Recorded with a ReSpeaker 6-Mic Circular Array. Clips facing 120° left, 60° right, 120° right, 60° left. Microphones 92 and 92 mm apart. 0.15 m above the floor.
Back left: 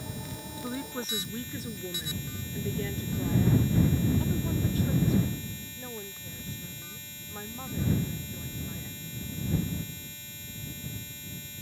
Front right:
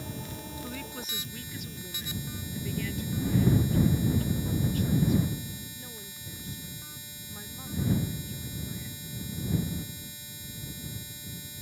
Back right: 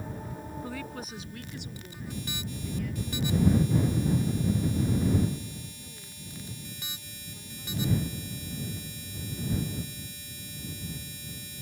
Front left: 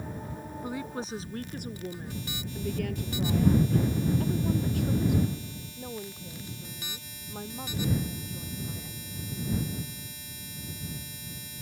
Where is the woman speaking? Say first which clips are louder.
Back left 4 dB, front left 6 dB; 115° left; by 9.5 s 60° left.